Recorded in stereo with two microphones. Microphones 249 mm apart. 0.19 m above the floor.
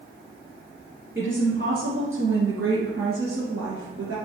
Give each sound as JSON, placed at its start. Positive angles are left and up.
{"t": 1.1, "sound": "a woman speaking", "side_deg": -55, "distance_m": 4.0}